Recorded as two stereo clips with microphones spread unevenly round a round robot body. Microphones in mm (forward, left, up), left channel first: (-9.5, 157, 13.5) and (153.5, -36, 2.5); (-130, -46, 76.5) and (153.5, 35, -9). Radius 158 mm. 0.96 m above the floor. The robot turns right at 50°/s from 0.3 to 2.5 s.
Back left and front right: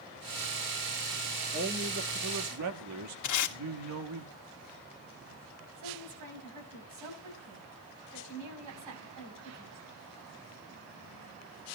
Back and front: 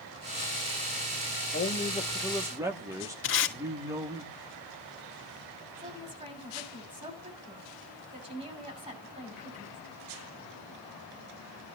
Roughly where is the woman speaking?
Ahead right.